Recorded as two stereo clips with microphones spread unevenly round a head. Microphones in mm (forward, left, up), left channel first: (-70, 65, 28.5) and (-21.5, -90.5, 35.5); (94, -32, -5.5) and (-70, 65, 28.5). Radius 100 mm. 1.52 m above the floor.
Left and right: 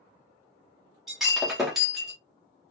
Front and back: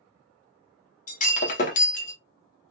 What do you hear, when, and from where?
1.1 s breaking glass: 15° left, 0.8 m